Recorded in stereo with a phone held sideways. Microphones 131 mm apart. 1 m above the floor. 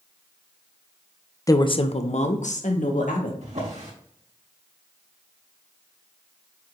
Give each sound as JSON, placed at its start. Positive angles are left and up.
{"t": 1.5, "sound": "a woman speaking", "side_deg": 25, "distance_m": 0.6}
{"t": 3.4, "sound": "a drawer", "side_deg": -65, "distance_m": 3.5}